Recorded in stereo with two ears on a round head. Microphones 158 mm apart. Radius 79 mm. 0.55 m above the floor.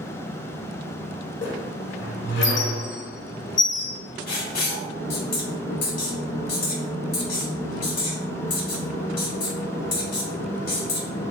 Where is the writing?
50° left (ahead or behind), 1.5 m.